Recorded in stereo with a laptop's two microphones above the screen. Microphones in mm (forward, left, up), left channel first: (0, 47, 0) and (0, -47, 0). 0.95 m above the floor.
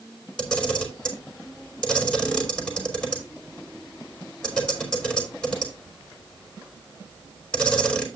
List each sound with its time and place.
0.4 s a camera shutter: 10° left (ahead or behind), 5 m